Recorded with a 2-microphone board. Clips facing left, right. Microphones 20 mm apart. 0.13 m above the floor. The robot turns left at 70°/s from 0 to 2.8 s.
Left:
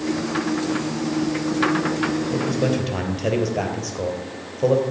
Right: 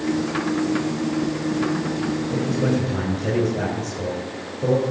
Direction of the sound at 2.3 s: 20° left (ahead or behind).